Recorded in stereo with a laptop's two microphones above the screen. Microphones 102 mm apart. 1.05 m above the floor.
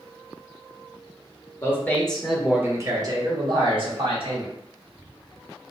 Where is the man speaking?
25° left (ahead or behind), 1.3 m; by 4.5 s 70° right (ahead or behind), 2.5 m.